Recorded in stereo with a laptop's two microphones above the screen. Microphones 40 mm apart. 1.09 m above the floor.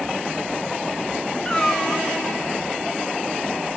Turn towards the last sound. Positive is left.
turn(degrees=20)  # may be behind; listen again after turning